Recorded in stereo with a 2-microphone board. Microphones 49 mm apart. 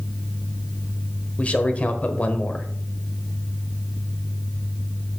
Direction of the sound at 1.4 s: 30° left (ahead or behind).